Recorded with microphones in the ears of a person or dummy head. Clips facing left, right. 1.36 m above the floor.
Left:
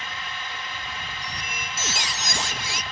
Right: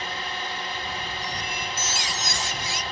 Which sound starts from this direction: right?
A drone, at 0.0 s.